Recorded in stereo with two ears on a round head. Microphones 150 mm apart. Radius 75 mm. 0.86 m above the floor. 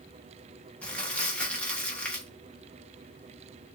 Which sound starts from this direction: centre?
Crumpling, at 0.8 s.